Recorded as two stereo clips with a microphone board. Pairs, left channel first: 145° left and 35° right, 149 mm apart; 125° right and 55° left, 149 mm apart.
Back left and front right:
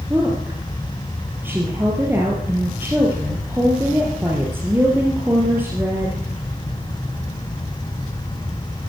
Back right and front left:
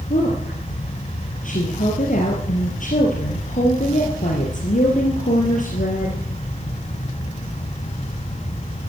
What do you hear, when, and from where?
0.1 s a woman speaking: 110° right, 3.5 m